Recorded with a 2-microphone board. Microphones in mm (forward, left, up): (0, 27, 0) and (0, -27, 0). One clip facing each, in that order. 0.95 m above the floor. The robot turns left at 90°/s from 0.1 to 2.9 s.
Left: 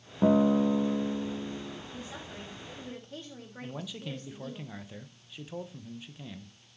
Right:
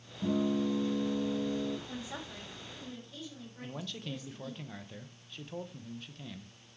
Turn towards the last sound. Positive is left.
turn(degrees=10)  # may be behind; listen again after turning